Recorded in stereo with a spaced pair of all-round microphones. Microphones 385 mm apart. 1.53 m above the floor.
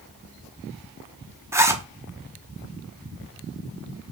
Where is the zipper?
5° right (ahead or behind), 0.7 m.